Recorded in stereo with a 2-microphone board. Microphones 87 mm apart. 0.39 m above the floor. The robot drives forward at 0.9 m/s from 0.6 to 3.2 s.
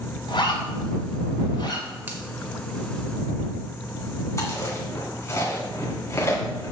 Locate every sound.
0.3 s a zipper: 65° left (ahead or behind), 5 m; by 1.9 s 60° left (ahead or behind), 5.5 m
2.1 s a finger snap: 25° right (ahead or behind), 1.6 m
4.4 s chewing: 35° left (ahead or behind), 2.5 m